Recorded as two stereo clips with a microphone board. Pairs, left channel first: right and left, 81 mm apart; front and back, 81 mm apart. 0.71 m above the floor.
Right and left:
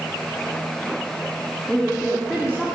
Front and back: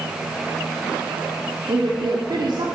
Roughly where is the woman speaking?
Behind.